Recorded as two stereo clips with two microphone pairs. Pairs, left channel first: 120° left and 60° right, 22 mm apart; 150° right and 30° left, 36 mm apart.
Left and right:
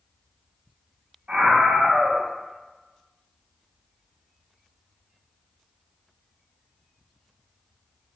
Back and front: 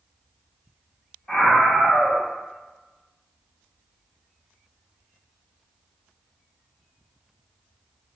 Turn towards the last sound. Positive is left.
turn(degrees=-75)